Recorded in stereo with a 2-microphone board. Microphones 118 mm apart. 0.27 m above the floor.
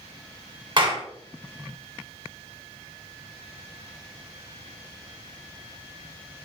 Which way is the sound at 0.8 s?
50° right (ahead or behind).